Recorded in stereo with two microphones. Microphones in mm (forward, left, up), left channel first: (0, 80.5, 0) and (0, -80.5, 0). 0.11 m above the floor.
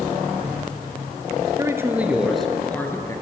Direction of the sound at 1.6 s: 20° right (ahead or behind).